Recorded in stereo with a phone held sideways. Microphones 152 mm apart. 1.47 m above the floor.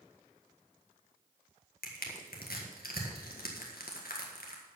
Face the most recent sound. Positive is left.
turn(degrees=80)